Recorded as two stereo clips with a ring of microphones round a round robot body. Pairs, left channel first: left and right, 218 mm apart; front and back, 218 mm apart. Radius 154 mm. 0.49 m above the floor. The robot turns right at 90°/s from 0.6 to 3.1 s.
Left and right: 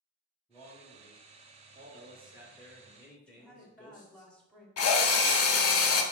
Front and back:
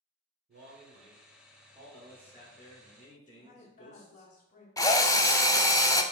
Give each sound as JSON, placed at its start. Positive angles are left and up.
{"t": 0.5, "sound": "a man speaking", "azimuth_deg": 170, "distance_m": 1.1}
{"t": 3.3, "sound": "a woman speaking", "azimuth_deg": 5, "distance_m": 1.0}
{"t": 4.8, "sound": "a drill", "azimuth_deg": 75, "distance_m": 0.6}